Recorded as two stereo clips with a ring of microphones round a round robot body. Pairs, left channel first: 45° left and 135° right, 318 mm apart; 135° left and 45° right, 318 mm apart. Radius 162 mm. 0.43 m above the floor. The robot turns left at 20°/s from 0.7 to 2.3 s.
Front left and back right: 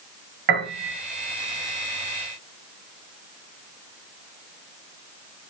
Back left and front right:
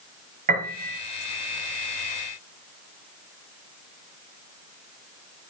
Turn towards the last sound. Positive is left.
turn(degrees=-145)